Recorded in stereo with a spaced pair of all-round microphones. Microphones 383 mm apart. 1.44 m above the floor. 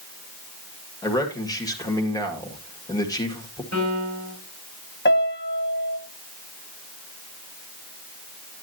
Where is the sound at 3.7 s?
45° right (ahead or behind), 3 m.